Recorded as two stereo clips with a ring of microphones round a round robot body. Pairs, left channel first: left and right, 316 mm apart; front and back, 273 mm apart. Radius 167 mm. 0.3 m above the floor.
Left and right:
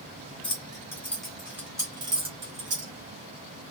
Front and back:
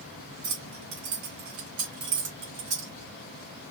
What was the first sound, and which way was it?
Keys jangling, 165° left.